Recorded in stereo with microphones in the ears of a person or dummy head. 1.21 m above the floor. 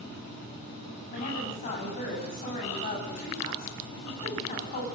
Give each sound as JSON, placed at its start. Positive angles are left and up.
{"t": 1.1, "sound": "a woman speaking", "side_deg": 45, "distance_m": 9.5}